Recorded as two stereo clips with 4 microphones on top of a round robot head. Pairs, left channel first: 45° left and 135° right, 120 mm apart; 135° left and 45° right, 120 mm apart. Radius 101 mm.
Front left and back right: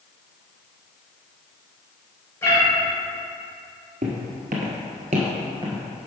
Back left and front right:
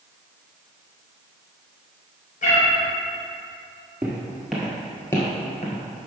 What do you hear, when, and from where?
2.4 s a cat meowing: 115° left, 2.5 m
4.0 s footsteps: 120° right, 1.4 m; by 6.1 s 140° left, 1.1 m